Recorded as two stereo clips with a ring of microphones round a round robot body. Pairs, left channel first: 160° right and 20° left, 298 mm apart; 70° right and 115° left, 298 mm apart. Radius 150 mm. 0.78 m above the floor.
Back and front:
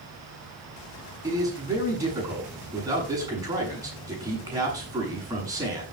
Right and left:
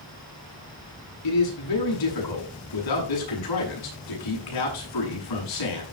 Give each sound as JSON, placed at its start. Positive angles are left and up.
{"t": 1.2, "sound": "a man speaking", "azimuth_deg": -55, "distance_m": 7.0}